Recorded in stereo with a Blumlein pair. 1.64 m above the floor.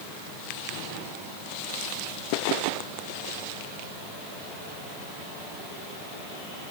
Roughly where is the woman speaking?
I don't hear a woman speaking.